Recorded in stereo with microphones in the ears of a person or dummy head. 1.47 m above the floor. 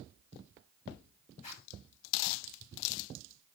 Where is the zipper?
40° left (ahead or behind), 6.5 m.